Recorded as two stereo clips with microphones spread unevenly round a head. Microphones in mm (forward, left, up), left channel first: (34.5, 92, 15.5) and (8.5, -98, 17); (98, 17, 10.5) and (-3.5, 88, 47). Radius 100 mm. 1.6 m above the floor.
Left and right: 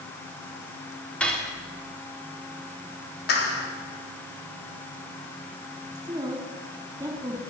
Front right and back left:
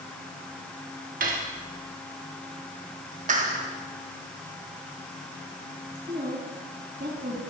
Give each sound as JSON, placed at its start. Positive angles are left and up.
{"t": 1.2, "sound": "cutlery clinking", "azimuth_deg": 165, "distance_m": 2.5}
{"t": 3.3, "sound": "a clap", "azimuth_deg": 125, "distance_m": 4.0}
{"t": 6.0, "sound": "a woman speaking", "azimuth_deg": -170, "distance_m": 4.5}